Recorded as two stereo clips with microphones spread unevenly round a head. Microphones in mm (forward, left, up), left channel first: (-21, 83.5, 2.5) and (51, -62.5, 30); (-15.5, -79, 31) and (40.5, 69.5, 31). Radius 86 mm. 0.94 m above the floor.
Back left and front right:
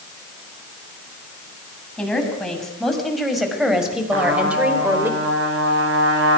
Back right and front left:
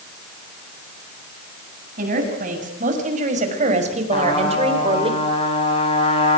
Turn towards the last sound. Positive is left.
turn(degrees=-55)